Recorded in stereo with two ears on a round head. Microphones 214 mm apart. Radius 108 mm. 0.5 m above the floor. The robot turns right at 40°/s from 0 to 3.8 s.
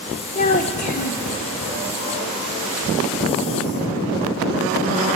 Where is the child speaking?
100° left, 0.8 m; by 1.3 s 135° left, 0.8 m.